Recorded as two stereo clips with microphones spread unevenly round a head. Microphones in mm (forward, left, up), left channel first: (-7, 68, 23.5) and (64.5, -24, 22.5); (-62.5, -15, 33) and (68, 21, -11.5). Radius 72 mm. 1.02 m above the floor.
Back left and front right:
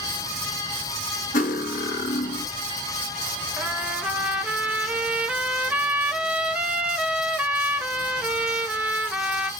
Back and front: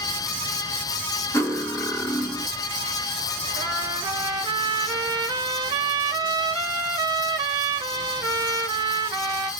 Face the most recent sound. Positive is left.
turn(degrees=20)